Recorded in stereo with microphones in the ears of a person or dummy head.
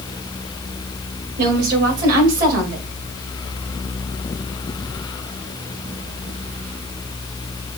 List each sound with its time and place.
1.4 s a woman speaking: 55° right (ahead or behind), 2.5 m